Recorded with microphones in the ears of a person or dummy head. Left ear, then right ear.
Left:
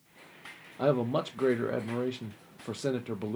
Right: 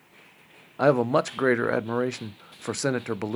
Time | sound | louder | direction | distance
0.8 | a man speaking | right 7 dB | 55° right (ahead or behind) | 0.6 m